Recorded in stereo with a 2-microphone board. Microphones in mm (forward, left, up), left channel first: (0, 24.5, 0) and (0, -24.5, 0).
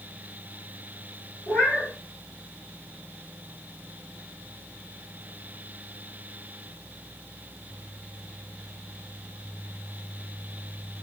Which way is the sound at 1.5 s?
75° left (ahead or behind).